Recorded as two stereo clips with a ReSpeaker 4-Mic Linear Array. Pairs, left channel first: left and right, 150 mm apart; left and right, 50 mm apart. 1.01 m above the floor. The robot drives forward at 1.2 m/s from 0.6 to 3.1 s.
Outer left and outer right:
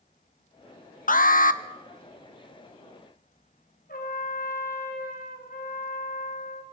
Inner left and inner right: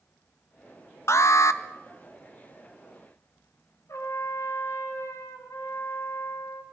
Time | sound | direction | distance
1.1 | an alarm | 60° left (ahead or behind) | 1.0 m
3.9 | a trumpet | 70° left (ahead or behind) | 4 m